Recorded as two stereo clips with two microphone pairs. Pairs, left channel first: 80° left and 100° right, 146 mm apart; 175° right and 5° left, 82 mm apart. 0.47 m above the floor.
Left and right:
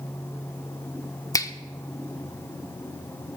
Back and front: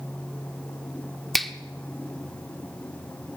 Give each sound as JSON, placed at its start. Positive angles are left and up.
{"t": 1.3, "sound": "a finger snap", "azimuth_deg": 95, "distance_m": 0.7}